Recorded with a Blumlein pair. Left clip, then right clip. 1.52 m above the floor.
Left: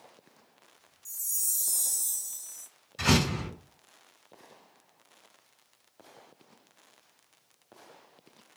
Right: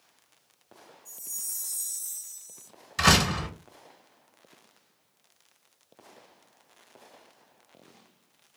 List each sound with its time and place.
1.1 s a chime: 35° left, 0.6 m
3.0 s a door slam: 35° right, 1.2 m